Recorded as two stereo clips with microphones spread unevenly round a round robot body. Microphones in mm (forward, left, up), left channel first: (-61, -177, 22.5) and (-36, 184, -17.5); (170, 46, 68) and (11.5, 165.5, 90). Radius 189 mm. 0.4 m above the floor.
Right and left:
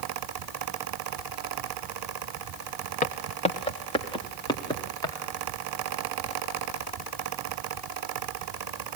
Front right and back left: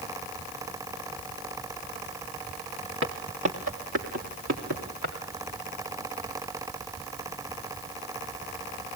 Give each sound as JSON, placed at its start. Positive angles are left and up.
{"t": 3.0, "sound": "footsteps", "azimuth_deg": -165, "distance_m": 1.9}